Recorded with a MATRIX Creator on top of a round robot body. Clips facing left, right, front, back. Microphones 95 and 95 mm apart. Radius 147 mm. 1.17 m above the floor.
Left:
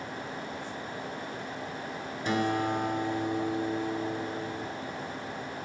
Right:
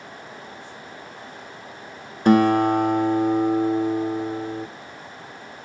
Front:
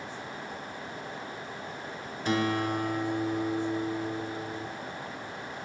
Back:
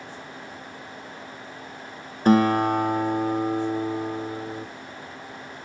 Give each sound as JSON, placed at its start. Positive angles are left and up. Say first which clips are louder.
{"t": 2.2, "sound": "a guitar", "louder": "right 12 dB, back 10 dB", "azimuth_deg": -130, "distance_m": 0.7}